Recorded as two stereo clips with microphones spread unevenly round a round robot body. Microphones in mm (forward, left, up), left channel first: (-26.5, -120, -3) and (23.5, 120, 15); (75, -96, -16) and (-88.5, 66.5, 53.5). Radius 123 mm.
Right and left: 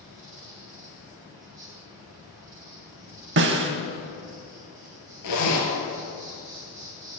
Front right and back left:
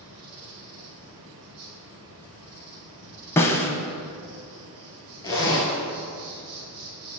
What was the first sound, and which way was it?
An insect, 155° left.